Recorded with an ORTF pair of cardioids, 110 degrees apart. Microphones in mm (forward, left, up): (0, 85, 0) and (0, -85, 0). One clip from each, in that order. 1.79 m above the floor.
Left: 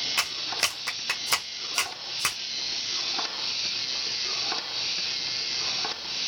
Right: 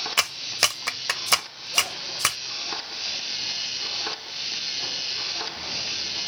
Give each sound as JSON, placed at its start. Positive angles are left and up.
{"t": 0.2, "sound": "a clap", "azimuth_deg": -25, "distance_m": 1.3}